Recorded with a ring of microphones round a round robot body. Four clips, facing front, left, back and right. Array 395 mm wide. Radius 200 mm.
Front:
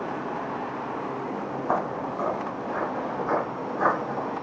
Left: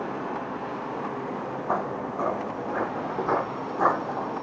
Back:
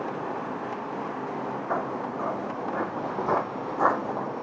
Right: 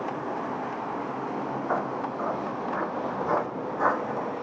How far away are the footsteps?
About 0.7 m.